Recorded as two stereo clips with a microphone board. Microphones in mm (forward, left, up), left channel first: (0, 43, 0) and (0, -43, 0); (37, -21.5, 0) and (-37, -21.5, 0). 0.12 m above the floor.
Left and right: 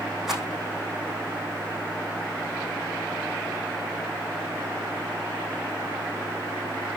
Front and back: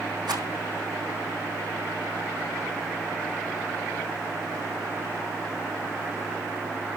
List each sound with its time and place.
0.3 s a rattle: 175° right, 3.5 m